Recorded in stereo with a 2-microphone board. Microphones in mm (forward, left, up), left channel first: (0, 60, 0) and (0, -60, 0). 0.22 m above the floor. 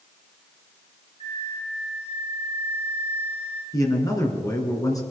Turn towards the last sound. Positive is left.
turn(degrees=30)  # may be behind; listen again after turning